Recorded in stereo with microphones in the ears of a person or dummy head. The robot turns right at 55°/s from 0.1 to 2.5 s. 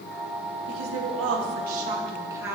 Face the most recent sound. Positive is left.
turn(degrees=-5)